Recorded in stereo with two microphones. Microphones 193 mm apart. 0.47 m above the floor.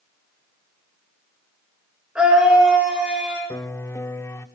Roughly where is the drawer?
I don't hear a drawer.